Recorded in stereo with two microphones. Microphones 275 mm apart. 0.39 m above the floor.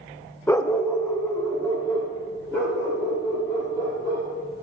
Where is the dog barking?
10° left (ahead or behind), 0.5 m.